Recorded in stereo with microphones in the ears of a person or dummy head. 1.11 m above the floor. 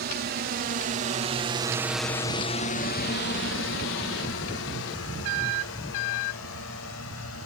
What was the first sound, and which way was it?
A drone, 55° right (ahead or behind).